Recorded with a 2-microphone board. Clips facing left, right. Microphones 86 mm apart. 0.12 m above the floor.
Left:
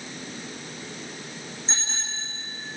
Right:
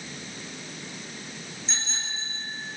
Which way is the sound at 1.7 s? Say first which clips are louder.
Right 1 dB; 30° left (ahead or behind).